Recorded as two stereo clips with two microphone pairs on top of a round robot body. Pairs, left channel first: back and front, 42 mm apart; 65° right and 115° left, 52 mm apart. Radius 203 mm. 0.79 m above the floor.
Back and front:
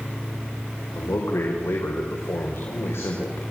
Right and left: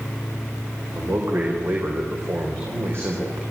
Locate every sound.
0.9 s a man speaking: 160° left, 4.5 m